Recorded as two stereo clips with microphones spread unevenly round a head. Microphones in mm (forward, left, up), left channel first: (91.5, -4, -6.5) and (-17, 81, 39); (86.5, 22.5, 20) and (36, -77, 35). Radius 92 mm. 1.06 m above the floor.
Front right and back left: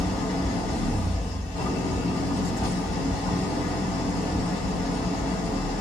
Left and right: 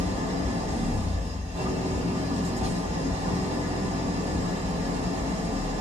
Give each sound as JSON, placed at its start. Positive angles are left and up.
{"t": 0.0, "sound": "an engine running", "azimuth_deg": -90, "distance_m": 1.1}